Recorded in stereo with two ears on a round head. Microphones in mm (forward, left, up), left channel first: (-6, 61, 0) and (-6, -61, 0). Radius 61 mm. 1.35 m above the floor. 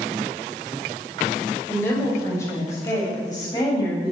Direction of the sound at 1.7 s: 15° left (ahead or behind).